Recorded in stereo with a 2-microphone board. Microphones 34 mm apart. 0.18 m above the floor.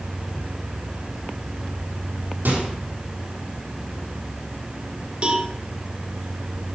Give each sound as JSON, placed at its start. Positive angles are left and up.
{"t": 2.5, "sound": "a microwave", "side_deg": -80, "distance_m": 5.0}
{"t": 5.2, "sound": "a cowbell", "side_deg": -35, "distance_m": 1.6}